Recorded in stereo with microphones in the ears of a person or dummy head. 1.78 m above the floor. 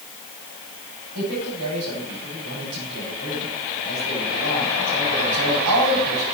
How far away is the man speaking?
About 8.5 m.